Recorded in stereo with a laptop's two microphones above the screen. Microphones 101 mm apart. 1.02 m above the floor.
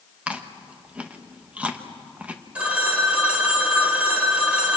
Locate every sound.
0.3 s chewing: 15° right (ahead or behind), 1.1 m
2.5 s a phone ringing: 10° right (ahead or behind), 2 m